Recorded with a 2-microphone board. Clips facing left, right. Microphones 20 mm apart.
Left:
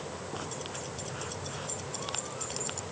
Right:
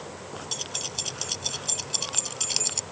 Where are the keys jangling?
60° right (ahead or behind); by 2.8 s 55° right (ahead or behind).